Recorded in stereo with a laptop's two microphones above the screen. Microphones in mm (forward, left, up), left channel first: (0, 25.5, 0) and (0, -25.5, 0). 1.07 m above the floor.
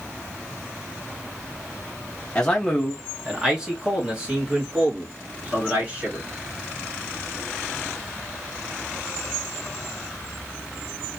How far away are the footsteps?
No footsteps in this recording.